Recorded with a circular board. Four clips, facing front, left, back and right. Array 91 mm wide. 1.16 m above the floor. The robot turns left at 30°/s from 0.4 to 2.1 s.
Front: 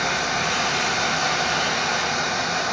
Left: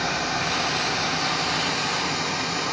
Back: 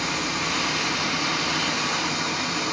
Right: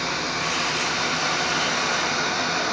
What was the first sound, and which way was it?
Running water, 5° right.